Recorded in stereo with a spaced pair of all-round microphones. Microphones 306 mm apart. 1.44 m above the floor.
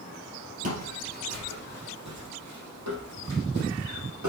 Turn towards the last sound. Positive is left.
turn(degrees=-70)  # may be behind; listen again after turning